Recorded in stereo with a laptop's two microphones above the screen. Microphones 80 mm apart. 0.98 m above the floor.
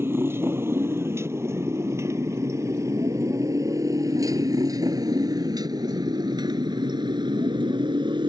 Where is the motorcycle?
30° right (ahead or behind); by 8.3 s 80° right.